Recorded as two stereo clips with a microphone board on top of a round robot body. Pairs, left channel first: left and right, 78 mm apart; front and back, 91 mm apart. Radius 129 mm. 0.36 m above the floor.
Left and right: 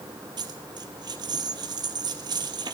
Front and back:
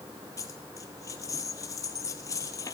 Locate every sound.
0.4 s a dropped coin: 55° right, 1.6 m